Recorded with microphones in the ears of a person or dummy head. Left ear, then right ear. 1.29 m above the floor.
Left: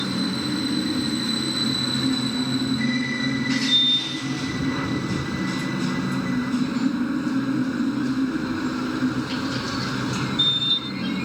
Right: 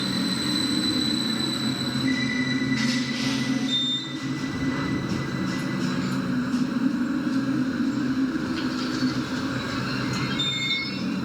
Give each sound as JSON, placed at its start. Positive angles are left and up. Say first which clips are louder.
{"t": 0.0, "sound": "a machine running", "louder": "even", "side_deg": 10}